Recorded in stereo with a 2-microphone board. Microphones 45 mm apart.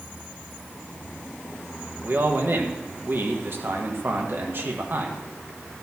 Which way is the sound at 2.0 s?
55° right (ahead or behind).